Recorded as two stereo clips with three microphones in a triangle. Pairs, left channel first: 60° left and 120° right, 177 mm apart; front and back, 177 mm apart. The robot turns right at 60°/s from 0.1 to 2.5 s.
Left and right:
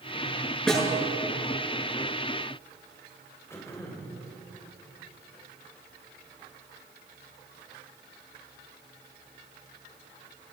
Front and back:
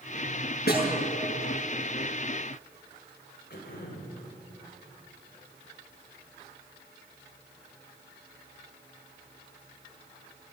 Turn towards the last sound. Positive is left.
turn(degrees=-15)